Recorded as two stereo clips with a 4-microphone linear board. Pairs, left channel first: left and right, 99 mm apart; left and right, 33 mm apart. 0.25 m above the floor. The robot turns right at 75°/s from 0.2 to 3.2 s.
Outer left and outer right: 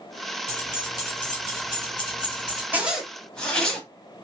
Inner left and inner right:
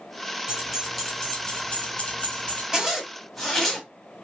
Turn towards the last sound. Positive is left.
turn(degrees=10)